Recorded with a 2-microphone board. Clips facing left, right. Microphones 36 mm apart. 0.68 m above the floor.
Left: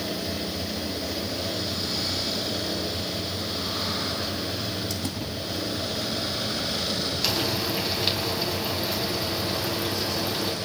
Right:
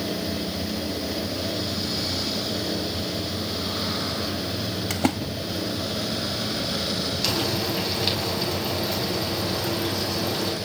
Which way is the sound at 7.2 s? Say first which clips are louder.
Right 1 dB; 5° left (ahead or behind).